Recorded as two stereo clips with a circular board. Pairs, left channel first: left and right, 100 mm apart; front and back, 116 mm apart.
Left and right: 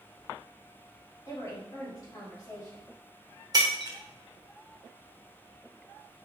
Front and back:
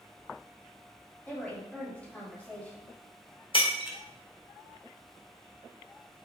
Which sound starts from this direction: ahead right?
Breaking glass, at 3.5 s.